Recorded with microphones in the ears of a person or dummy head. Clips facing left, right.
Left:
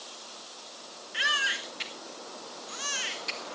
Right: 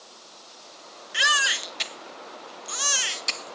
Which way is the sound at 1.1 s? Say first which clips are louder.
Right 6 dB; 80° right.